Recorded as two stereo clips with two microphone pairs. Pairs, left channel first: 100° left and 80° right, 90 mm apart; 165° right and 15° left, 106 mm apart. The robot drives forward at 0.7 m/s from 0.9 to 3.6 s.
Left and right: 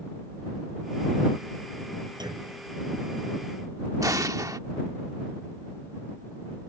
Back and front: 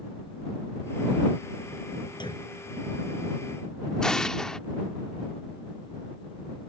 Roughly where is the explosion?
Right.